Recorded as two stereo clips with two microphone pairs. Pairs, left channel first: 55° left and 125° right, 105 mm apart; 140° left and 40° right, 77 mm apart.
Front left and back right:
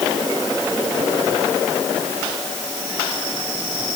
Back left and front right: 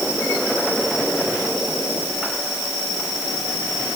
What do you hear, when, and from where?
Only background noise.